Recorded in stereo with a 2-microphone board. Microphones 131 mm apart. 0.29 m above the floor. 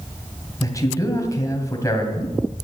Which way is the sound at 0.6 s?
25° left (ahead or behind).